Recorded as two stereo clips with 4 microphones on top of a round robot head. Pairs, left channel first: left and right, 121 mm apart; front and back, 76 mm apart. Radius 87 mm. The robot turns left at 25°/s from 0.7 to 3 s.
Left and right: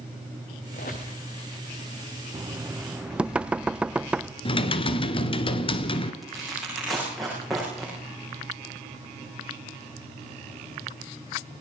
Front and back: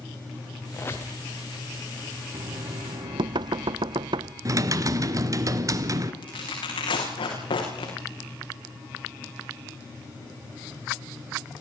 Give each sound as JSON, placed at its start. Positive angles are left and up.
{"t": 0.7, "sound": "a squeak", "azimuth_deg": 60, "distance_m": 4.0}
{"t": 2.3, "sound": "knocking", "azimuth_deg": -155, "distance_m": 0.6}
{"t": 4.5, "sound": "typing on a keyboard", "azimuth_deg": 135, "distance_m": 1.8}
{"t": 6.2, "sound": "tearing paper", "azimuth_deg": 0, "distance_m": 9.5}